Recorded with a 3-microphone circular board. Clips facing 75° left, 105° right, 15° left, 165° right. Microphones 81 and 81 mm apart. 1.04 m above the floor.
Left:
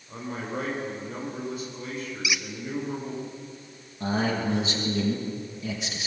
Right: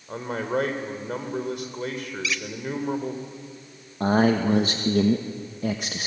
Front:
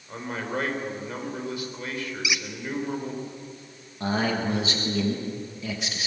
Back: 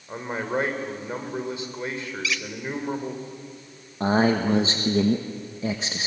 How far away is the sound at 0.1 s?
About 3.5 m.